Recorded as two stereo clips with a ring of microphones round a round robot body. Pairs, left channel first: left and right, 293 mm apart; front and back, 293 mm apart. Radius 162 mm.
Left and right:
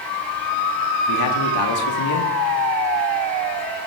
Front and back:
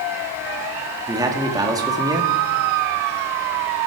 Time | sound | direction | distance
1.1 | a man speaking | 105° left | 2.0 m